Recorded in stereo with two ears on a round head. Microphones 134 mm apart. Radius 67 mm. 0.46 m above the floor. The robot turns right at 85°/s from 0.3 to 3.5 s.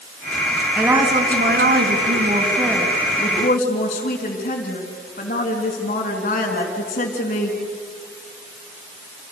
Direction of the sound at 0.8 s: 175° left.